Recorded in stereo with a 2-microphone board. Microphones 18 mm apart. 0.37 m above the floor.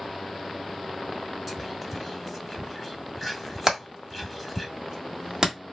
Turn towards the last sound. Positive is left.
turn(degrees=-35)  # may be behind; listen again after turning